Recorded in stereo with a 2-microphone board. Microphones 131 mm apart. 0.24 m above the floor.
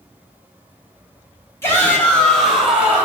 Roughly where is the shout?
Centre.